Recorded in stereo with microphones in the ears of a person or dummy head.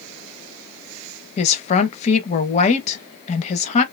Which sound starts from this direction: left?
A woman speaking, at 1.4 s.